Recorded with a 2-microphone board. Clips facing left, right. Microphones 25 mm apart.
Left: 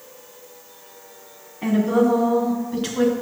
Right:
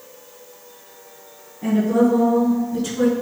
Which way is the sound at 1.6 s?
65° left (ahead or behind).